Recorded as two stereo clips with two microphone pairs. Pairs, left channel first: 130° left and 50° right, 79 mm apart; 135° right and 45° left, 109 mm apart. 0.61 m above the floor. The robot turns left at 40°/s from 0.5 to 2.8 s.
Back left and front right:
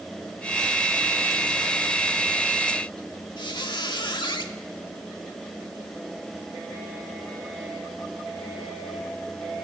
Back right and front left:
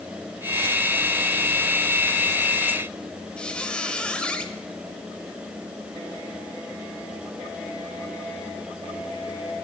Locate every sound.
3.4 s a squeak: 145° left, 0.8 m